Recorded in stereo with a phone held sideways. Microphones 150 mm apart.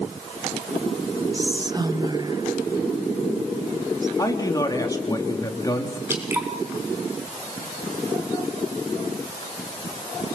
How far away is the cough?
I don't hear a cough.